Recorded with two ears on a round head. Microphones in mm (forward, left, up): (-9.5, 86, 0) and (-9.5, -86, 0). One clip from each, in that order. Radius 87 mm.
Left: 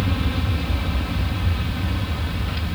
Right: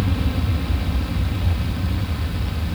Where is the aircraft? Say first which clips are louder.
Left 1 dB; 35° left (ahead or behind); by 2.8 s 40° left (ahead or behind).